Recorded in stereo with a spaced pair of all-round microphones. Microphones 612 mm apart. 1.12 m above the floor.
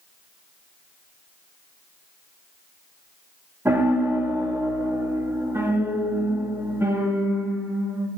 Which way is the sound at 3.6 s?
5° right (ahead or behind).